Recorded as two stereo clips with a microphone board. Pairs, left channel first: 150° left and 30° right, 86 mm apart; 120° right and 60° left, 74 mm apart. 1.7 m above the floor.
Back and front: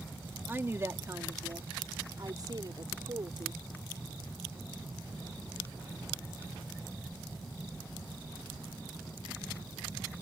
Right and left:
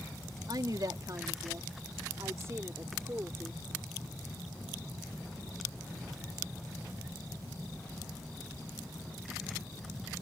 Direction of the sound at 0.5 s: 35° left.